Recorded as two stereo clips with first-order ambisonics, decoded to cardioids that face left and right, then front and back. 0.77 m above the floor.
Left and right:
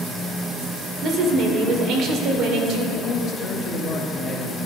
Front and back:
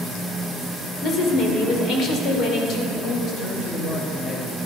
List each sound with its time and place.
1.0 s a woman speaking: 45° right, 2 m
2.9 s a man speaking: 40° left, 1.2 m